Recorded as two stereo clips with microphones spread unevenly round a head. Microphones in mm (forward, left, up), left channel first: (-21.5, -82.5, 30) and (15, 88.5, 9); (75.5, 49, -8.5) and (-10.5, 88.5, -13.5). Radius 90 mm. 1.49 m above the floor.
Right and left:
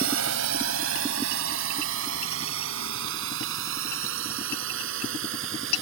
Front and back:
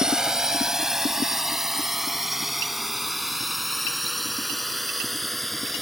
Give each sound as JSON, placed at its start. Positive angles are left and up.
{"t": 0.0, "sound": "a drone", "azimuth_deg": 70}